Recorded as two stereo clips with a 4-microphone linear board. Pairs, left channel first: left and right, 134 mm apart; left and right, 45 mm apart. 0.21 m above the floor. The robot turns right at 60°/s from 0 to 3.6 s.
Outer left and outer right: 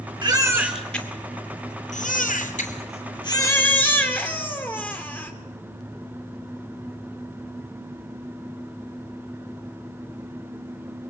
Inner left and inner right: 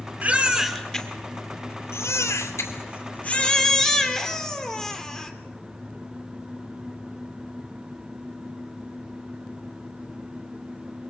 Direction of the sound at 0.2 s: 35° right.